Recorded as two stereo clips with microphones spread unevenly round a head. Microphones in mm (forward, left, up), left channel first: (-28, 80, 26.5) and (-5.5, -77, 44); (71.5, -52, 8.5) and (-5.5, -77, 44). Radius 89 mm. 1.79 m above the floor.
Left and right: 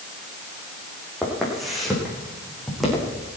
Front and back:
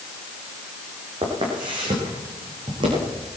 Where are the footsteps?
170° right, 4.5 m.